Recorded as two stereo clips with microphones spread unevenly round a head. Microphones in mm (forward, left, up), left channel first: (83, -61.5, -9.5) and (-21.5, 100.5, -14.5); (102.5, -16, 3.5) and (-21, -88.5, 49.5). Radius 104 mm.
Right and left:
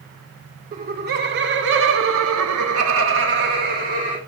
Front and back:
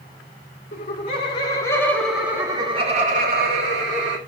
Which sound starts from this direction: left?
Laughter, at 0.7 s.